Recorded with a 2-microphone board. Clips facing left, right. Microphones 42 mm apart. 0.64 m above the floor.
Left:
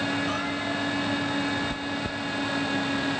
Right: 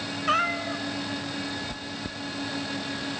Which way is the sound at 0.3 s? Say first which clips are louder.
Right 3 dB; 55° right (ahead or behind).